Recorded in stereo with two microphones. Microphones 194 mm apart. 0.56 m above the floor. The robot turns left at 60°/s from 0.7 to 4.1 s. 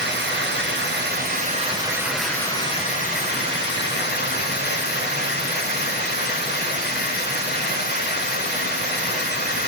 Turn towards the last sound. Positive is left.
turn(degrees=65)